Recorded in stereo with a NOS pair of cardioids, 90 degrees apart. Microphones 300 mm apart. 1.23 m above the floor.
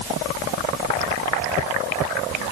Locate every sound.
Only background noise.